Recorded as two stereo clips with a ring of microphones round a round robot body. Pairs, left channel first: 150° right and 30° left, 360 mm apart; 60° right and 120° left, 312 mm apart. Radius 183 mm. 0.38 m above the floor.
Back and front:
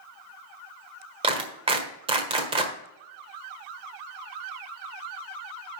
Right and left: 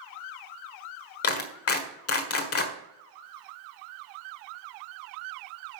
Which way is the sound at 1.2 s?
40° right.